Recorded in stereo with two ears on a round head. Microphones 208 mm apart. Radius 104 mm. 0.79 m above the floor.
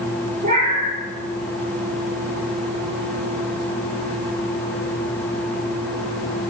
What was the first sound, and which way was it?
A cat meowing, 30° right (ahead or behind).